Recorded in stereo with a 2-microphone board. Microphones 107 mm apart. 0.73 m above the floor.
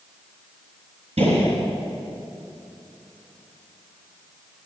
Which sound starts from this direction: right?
A gunshot, at 1.2 s.